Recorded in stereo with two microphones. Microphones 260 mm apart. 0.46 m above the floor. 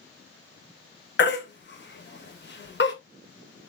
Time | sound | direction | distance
1.2 | a baby crying | 45° left (ahead or behind) | 0.6 m